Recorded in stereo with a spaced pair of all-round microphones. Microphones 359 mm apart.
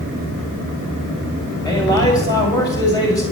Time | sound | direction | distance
1.6 | a man speaking | 10° left (ahead or behind) | 7 m